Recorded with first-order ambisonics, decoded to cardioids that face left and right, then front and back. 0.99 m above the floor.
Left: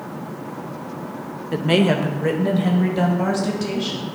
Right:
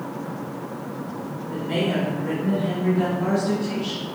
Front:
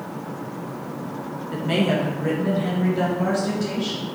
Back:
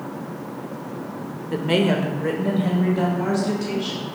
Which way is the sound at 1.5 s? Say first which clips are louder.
Left 6 dB, back 2 dB; 110° left.